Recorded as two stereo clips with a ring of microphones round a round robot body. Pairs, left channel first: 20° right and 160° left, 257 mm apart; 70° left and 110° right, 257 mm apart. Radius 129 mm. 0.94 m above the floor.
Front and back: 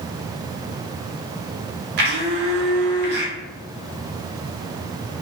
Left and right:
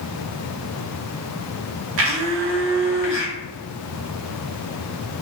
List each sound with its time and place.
2.0 s a blender: 155° right, 0.6 m